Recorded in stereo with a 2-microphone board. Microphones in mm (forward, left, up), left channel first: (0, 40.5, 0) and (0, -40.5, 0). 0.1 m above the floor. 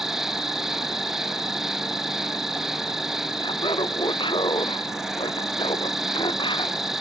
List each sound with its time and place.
0.0 s an insect: 5° right (ahead or behind)
3.4 s laughter: 80° left